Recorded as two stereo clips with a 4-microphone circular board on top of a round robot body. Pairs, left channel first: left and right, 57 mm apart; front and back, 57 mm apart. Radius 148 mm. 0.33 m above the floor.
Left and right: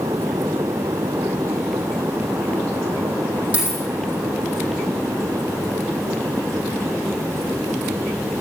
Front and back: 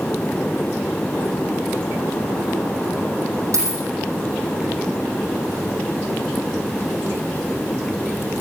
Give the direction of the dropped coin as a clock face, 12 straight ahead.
5 o'clock.